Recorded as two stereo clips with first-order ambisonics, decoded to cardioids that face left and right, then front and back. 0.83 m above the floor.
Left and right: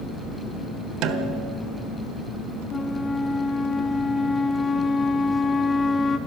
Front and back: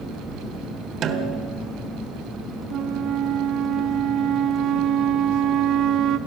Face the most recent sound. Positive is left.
turn(degrees=160)